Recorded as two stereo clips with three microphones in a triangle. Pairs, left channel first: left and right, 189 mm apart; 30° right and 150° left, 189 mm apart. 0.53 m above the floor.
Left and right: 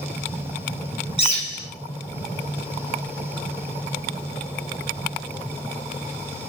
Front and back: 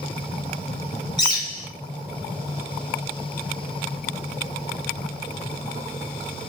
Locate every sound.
1.2 s a bird: 35° left, 1.4 m